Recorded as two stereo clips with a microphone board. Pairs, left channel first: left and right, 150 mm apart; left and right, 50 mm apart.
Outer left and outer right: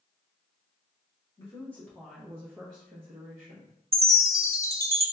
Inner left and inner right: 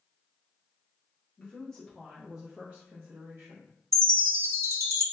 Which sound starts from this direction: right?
A chime, at 3.9 s.